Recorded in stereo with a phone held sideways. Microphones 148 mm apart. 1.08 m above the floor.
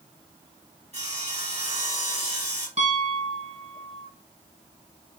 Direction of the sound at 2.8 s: 45° right (ahead or behind).